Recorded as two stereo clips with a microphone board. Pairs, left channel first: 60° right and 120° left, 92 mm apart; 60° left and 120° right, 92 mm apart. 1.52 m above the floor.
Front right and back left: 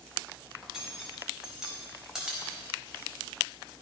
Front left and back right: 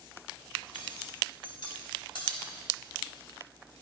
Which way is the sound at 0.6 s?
35° left.